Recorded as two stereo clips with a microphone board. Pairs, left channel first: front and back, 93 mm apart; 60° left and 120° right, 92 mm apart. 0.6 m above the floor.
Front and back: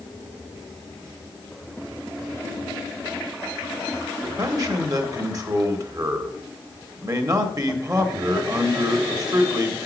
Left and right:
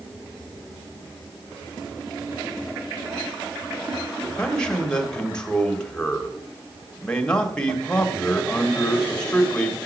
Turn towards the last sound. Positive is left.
turn(degrees=140)